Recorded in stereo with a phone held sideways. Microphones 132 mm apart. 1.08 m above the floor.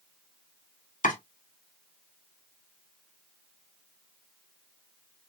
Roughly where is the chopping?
Left.